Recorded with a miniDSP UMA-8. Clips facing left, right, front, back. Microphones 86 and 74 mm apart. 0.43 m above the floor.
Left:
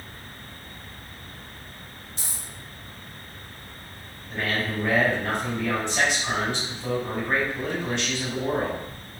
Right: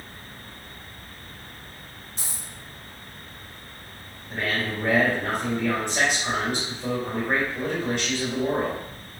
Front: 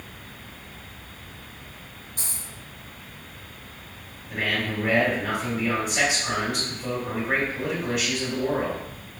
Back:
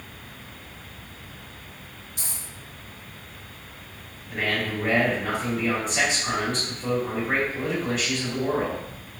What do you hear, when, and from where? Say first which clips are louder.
2.2 s a dropped coin: right 1 dB, even; 45° right, 1.3 m
4.3 s a man speaking: even, even; 80° right, 1.6 m